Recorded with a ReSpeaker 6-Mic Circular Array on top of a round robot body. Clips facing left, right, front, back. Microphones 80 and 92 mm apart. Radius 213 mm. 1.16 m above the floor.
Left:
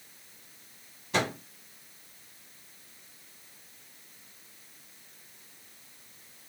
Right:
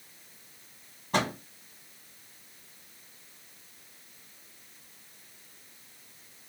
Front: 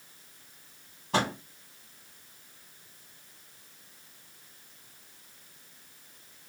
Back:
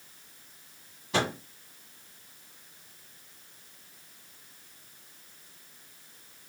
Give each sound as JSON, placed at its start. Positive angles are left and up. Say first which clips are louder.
{"t": 1.1, "sound": "a microwave", "louder": "right 1 dB, front 1 dB", "azimuth_deg": -45, "distance_m": 1.4}